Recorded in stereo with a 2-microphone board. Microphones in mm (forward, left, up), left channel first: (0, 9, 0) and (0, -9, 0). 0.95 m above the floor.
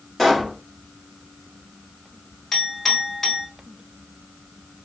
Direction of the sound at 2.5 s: 30° left (ahead or behind).